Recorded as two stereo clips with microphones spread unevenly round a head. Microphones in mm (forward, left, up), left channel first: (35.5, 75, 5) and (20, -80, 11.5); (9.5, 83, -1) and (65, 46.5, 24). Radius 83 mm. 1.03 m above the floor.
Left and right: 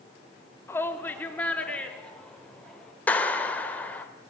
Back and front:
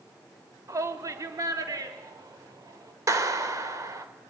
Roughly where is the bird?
No bird in this recording.